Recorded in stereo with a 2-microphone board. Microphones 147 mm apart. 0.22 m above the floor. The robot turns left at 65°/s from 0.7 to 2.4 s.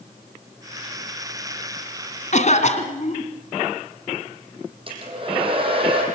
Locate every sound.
2.3 s a cough: 55° left (ahead or behind), 2.5 m
4.9 s a hair dryer: 40° right (ahead or behind), 7 m